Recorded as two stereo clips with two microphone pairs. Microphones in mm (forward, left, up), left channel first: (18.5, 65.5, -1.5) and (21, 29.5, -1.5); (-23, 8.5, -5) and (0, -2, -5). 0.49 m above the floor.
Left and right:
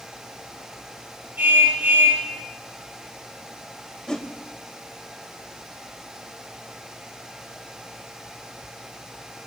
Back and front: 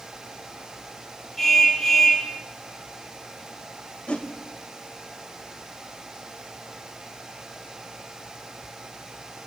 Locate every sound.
1.4 s a car horn: 120° right, 8.5 m
4.1 s a whoosh: 170° left, 1.9 m